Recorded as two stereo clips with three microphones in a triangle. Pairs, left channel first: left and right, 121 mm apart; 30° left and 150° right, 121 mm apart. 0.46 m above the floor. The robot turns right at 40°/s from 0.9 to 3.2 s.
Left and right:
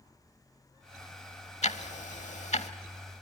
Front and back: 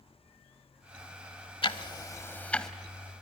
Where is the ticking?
70° left, 0.8 m; by 2.7 s 115° left, 0.8 m.